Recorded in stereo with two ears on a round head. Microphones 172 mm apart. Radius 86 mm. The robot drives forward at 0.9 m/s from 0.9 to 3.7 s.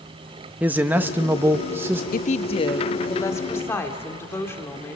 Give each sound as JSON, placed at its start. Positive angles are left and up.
{"t": 0.6, "sound": "a man speaking", "side_deg": -10, "distance_m": 0.8}
{"t": 2.1, "sound": "a woman speaking", "side_deg": 50, "distance_m": 0.5}